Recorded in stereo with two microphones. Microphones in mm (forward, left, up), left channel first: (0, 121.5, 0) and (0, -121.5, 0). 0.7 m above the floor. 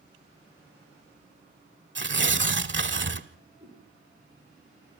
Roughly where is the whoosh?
Right.